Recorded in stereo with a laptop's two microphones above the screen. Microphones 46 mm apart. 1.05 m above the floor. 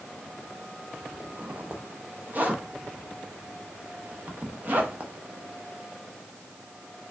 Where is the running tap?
I don't hear a running tap.